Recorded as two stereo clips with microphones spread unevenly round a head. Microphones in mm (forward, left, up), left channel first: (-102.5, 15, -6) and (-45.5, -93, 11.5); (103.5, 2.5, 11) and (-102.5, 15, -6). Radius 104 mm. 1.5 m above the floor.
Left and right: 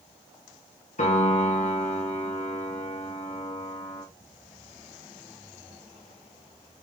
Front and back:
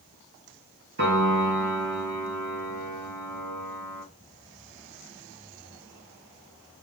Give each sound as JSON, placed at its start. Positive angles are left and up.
{"t": 1.0, "sound": "a piano", "azimuth_deg": 140, "distance_m": 3.0}